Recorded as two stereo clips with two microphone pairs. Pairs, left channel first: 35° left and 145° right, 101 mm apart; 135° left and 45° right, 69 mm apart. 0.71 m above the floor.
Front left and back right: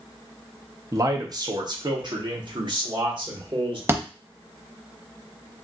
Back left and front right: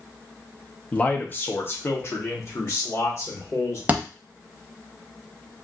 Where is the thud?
100° right, 0.6 m.